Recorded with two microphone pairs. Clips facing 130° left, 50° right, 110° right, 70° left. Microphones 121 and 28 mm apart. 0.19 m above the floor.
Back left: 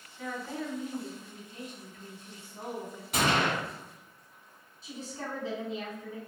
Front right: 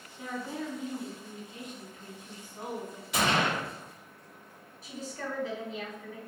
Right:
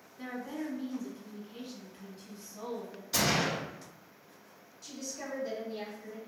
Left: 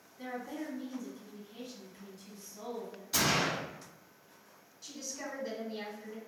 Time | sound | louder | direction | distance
0.2 | a woman speaking | even, right 2 dB | 110° right | 1.1 m
3.1 | a gunshot | even, right 1 dB | 160° left | 1.9 m
4.8 | a woman speaking | front right 1 dB, right 1 dB | 130° left | 1.1 m